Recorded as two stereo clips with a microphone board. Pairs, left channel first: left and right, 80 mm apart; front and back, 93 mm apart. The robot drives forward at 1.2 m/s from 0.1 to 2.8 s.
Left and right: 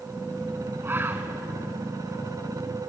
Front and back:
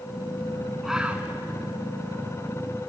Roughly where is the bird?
Right.